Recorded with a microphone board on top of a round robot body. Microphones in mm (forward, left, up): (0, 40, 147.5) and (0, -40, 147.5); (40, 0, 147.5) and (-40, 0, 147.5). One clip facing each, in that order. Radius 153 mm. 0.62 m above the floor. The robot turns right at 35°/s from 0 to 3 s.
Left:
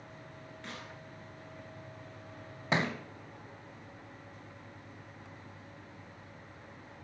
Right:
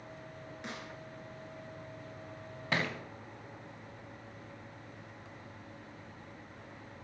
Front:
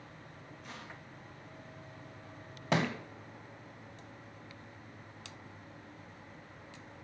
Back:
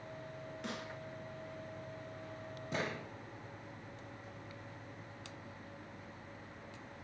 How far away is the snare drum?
About 4 m.